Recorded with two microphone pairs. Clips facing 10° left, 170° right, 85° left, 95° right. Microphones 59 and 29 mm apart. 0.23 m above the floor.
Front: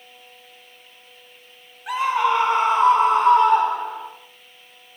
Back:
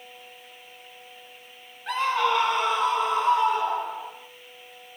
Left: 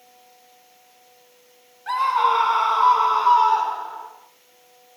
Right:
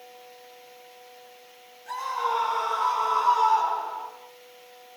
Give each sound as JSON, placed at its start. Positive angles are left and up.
{"t": 1.9, "sound": "a scream", "azimuth_deg": 90, "distance_m": 2.5}